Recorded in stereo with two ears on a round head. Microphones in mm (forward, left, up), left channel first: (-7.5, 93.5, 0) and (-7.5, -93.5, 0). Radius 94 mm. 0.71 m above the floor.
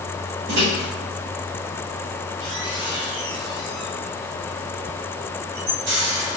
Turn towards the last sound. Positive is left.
turn(degrees=-60)  # may be behind; listen again after turning